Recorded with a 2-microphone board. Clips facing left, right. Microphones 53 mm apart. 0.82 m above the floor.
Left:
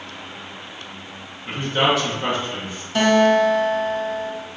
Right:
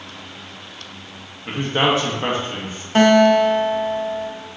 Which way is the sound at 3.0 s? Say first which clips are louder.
Right 3 dB; 35° right (ahead or behind).